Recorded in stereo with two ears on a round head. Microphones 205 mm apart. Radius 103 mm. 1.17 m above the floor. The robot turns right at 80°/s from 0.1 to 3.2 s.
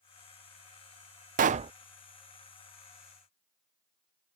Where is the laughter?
I don't hear laughter.